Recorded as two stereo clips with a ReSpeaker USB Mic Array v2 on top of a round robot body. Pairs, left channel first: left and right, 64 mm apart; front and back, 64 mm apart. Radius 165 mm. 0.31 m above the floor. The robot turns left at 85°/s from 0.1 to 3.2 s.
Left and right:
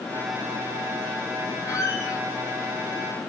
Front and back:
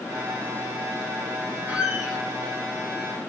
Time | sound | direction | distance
1.7 | a squeak | 125° left | 4.5 m